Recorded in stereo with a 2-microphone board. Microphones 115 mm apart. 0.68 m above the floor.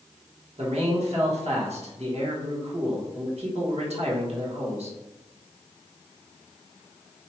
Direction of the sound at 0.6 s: 65° right (ahead or behind).